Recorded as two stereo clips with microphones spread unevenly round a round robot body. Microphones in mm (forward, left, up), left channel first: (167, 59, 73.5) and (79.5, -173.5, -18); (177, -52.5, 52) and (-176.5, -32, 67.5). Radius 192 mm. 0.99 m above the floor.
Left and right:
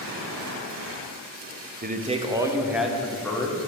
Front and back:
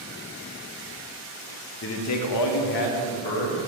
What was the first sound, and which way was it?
A man speaking, 60° right.